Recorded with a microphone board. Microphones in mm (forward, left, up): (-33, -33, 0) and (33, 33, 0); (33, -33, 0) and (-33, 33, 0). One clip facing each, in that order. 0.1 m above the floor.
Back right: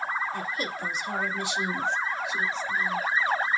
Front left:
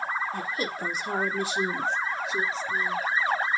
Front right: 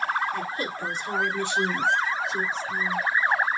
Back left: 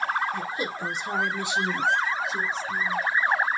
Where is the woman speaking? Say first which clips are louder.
Front left 1 dB, even; 70° left, 2.5 m; by 3.0 s 35° left, 1.6 m.